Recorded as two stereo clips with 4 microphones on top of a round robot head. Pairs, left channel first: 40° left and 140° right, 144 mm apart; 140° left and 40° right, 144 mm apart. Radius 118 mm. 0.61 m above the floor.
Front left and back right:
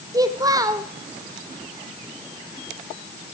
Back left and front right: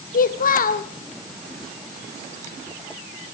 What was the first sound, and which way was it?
A child speaking, 155° left.